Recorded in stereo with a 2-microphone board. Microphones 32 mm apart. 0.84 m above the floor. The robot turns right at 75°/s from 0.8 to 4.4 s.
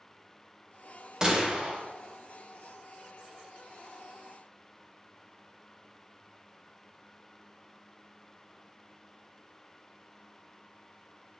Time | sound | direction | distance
1.2 | a gunshot | 140° right | 0.6 m